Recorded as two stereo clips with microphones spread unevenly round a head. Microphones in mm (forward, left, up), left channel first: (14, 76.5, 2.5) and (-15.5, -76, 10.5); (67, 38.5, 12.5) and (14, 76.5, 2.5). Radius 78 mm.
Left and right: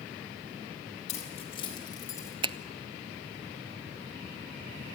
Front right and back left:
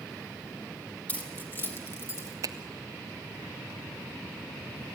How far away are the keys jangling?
About 4 m.